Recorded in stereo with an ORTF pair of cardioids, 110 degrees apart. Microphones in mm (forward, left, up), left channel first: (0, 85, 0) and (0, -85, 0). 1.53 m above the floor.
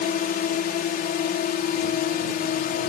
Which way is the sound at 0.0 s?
60° left.